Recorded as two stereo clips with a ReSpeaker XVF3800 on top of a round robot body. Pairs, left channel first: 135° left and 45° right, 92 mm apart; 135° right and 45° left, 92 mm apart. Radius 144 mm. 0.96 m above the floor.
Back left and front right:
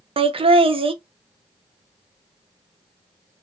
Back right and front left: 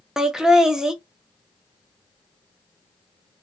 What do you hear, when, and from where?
0.2 s laughter: 40° right, 0.6 m